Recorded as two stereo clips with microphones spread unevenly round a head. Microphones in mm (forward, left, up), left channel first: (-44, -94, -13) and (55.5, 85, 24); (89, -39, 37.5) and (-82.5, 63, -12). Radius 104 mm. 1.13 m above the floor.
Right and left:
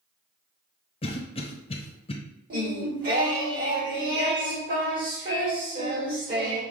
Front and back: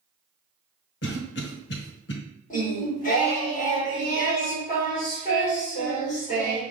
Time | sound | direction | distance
1.0 | a cough | 65° right | 1.1 m
2.5 | singing | 20° left | 1.8 m